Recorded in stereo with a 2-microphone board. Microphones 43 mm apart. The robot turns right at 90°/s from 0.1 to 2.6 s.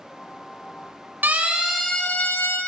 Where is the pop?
I don't hear a pop.